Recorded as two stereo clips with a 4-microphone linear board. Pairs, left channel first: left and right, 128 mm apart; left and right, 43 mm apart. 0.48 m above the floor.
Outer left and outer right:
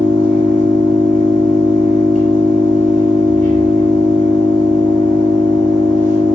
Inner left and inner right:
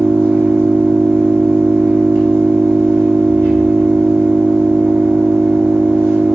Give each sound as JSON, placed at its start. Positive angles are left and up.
{"t": 0.0, "sound": "an engine running", "side_deg": -80, "distance_m": 1.9}